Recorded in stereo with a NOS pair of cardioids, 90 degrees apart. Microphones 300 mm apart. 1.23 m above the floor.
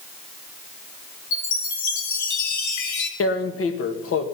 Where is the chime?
65° left, 2.5 m.